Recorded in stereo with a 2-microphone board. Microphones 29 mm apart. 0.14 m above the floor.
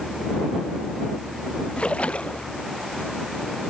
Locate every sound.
1.8 s a splash: 45° left (ahead or behind)